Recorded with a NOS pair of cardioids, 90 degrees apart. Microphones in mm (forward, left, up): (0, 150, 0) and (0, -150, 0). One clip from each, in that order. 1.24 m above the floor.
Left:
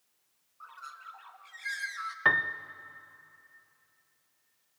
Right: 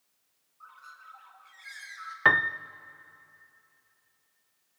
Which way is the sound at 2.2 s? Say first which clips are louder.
Right 4 dB; 20° right.